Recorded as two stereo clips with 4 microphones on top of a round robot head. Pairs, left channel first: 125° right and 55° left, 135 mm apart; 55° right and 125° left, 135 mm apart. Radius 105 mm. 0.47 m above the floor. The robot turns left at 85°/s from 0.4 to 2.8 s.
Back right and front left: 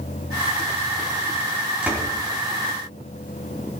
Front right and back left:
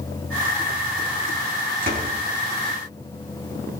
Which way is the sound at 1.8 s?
135° left.